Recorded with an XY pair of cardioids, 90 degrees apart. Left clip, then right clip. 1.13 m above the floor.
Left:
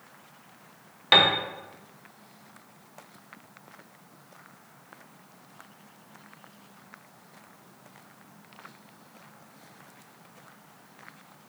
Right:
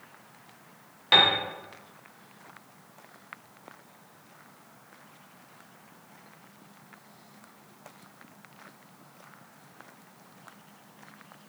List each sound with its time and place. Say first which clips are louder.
1.1 s a piano: left 1 dB; 30° left, 0.8 m